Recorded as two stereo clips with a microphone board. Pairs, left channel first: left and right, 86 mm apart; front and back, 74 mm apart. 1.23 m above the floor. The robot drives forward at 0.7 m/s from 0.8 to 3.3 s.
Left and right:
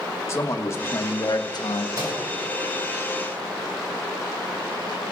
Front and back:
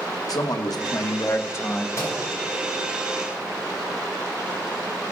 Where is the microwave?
50° right, 5.5 m.